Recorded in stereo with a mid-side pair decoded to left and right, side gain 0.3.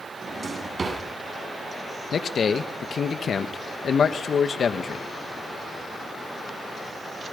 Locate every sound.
0.2 s a drawer: 50° right, 8.5 m
2.1 s a man speaking: 70° left, 2.0 m